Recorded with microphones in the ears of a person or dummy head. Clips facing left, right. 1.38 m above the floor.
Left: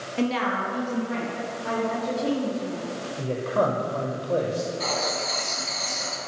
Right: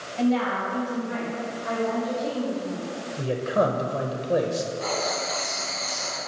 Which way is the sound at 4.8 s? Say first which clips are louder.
Right 1 dB; 65° left (ahead or behind).